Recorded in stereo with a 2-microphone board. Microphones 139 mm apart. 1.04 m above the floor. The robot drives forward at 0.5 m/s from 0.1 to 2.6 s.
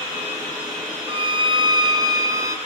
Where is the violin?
40° right (ahead or behind), 0.8 m; by 2.6 s 25° right (ahead or behind), 1.4 m.